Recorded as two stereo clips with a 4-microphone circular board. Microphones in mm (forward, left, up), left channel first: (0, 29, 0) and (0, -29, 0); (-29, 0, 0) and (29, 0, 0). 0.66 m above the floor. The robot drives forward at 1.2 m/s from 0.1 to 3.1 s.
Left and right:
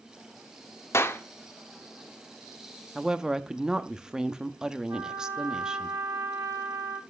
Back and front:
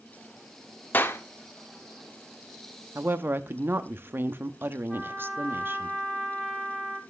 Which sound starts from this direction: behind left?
A clap, at 0.9 s.